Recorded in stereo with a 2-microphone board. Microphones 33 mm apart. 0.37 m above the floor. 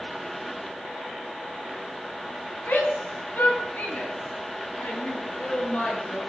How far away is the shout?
About 4 m.